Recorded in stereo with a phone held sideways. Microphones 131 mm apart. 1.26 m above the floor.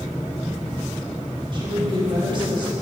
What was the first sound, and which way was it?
A woman speaking, 40° right (ahead or behind).